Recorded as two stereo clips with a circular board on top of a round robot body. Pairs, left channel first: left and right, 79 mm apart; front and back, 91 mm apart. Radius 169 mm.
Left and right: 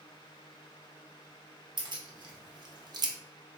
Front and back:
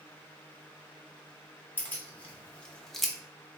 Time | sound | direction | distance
1.8 | keys jangling | 70° right | 1.3 m